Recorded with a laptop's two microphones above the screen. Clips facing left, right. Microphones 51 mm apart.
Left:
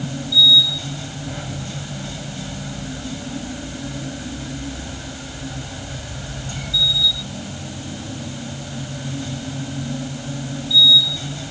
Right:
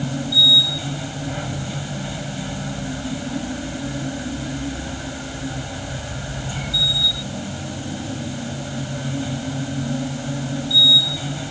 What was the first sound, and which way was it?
A machine running, 15° right (ahead or behind).